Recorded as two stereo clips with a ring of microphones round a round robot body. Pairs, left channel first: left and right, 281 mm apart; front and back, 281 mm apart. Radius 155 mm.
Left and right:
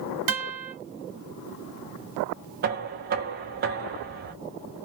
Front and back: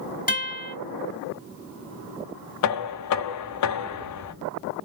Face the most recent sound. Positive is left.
turn(degrees=-30)